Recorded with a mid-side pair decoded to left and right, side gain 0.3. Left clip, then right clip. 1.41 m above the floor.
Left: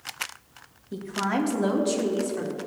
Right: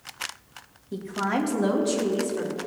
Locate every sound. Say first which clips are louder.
0.9 s a woman speaking: even; straight ahead, 2.5 m; by 2.5 s 15° left, 3.5 m